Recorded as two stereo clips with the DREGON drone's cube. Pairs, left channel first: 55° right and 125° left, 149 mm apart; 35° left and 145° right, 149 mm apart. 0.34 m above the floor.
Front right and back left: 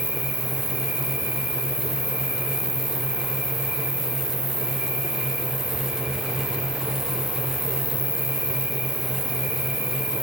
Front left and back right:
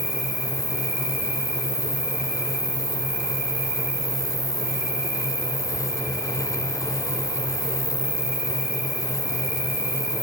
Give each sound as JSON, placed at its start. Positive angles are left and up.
{"t": 0.0, "sound": "an insect", "azimuth_deg": 135, "distance_m": 1.6}